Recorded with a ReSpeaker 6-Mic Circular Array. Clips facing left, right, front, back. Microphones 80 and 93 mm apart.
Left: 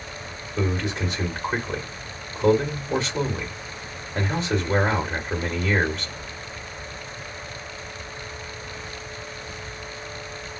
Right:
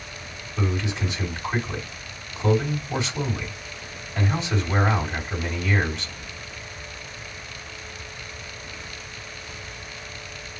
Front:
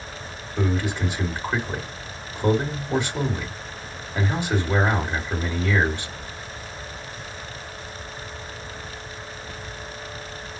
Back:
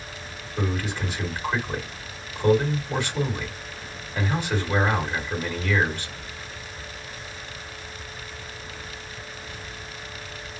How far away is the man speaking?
About 1.8 m.